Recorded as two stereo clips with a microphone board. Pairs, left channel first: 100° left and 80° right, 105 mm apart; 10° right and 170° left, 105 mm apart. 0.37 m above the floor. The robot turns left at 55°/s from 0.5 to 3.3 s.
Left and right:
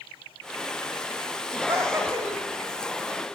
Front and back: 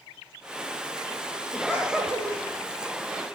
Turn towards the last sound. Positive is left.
turn(degrees=145)